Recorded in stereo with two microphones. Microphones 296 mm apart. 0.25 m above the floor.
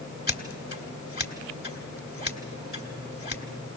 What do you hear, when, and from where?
0.3 s scissors: 35° left (ahead or behind), 1.7 m